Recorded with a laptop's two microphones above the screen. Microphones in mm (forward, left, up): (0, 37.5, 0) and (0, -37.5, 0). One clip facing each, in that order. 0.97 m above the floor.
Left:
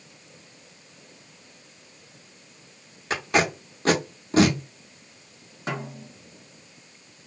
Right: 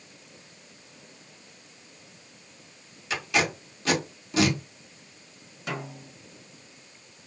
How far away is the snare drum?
About 0.8 m.